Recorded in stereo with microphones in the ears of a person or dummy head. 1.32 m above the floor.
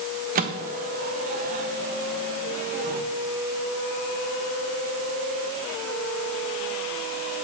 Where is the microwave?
45° right (ahead or behind), 1.0 m.